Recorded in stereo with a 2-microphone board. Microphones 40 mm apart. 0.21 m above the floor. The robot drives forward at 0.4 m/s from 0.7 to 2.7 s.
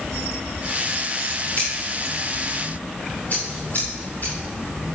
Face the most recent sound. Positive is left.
turn(degrees=40)  # may be behind; listen again after turning